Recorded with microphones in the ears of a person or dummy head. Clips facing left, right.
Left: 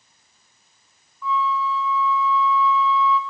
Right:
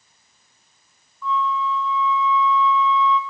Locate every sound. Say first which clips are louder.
1.2 s a flute: even; 5° left (ahead or behind), 1.0 m